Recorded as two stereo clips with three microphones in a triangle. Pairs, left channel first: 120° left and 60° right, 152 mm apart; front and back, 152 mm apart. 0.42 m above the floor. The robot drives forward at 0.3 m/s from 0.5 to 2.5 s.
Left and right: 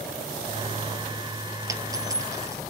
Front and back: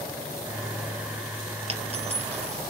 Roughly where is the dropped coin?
Behind right.